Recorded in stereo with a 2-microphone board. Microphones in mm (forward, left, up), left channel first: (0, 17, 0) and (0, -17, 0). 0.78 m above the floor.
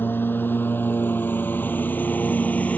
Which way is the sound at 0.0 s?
85° left.